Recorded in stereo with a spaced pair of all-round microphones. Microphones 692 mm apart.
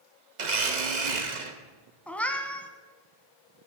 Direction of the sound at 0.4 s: 70° right (ahead or behind).